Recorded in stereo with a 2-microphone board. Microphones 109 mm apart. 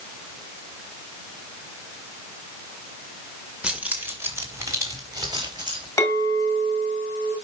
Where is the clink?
30° left (ahead or behind), 2.5 m.